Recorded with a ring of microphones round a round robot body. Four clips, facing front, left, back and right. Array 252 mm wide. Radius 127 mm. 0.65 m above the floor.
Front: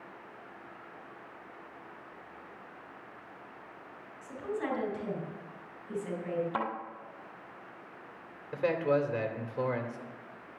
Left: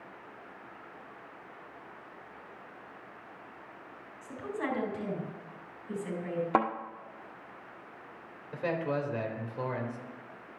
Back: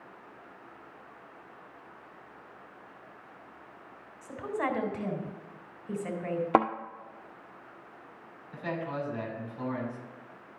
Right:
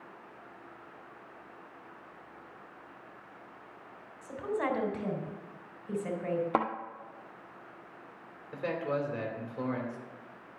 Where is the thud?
Straight behind, 1.4 m.